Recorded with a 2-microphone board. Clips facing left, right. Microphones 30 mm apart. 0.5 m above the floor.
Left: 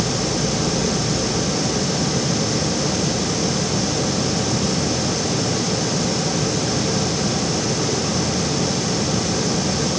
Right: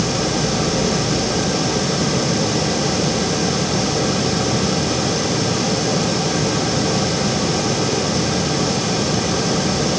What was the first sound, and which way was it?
Only background noise.